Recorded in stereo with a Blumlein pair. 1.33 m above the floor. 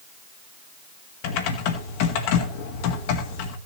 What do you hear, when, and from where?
1.2 s typing on a keyboard: 45° left, 1.7 m